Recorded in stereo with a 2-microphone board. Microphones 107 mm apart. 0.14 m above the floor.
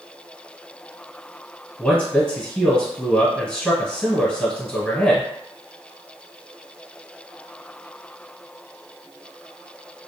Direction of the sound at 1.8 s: 10° left (ahead or behind).